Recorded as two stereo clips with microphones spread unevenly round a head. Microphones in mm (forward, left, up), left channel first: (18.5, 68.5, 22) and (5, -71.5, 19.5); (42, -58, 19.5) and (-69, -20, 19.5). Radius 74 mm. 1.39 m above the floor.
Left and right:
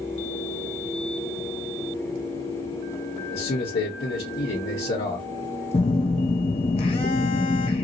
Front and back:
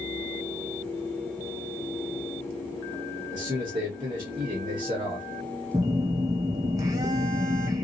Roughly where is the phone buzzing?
Left.